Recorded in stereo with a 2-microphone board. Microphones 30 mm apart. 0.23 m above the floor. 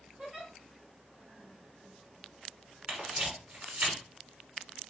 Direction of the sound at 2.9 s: 40° right (ahead or behind).